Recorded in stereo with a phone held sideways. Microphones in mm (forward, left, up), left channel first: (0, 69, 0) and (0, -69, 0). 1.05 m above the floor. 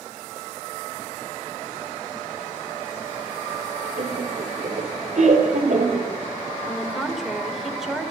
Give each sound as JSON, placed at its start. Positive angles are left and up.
{"t": 4.0, "sound": "laughter", "side_deg": -70, "distance_m": 3.0}
{"t": 6.7, "sound": "a woman speaking", "side_deg": -5, "distance_m": 3.5}